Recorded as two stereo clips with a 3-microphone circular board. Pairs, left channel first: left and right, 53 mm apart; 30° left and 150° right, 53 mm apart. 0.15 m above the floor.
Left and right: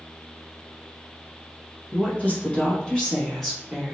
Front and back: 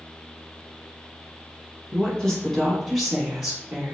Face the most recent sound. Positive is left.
turn(degrees=-165)